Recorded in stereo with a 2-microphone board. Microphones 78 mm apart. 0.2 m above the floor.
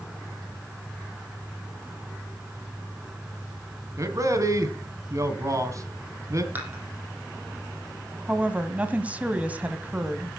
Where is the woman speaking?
20° right (ahead or behind), 1.2 m.